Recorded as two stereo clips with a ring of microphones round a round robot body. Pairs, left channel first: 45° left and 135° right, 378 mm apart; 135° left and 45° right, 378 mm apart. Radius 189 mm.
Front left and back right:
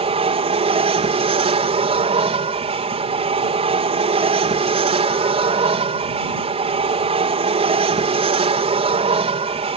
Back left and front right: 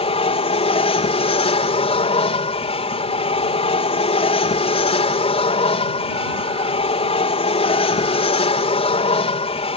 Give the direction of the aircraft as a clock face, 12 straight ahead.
6 o'clock.